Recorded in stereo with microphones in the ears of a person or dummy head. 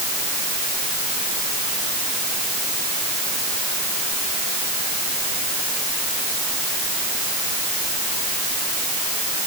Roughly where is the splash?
No splash in this recording.